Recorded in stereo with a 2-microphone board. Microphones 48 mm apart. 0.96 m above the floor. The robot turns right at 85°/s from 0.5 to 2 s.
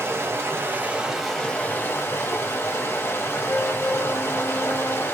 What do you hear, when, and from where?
0.0 s running water: 65° right, 1.5 m; by 5.1 s 65° left, 1.5 m
3.5 s a flute: 15° left (ahead or behind), 1.1 m